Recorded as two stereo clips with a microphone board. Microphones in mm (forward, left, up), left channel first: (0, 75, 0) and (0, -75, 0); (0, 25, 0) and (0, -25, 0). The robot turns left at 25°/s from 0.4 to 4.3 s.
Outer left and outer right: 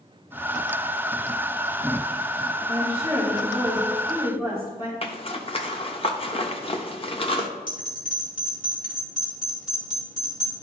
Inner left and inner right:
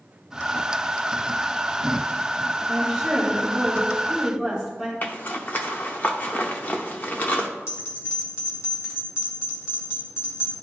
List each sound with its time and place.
2.7 s a woman speaking: 170° right, 3 m; by 4.9 s 150° left, 3 m
5.0 s a zipper: 40° left (ahead or behind), 0.7 m
7.7 s a bell: 60° left (ahead or behind), 2.5 m